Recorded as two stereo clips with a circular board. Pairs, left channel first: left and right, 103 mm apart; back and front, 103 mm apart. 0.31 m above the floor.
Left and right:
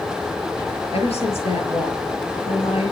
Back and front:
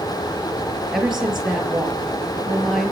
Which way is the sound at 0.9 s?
85° left.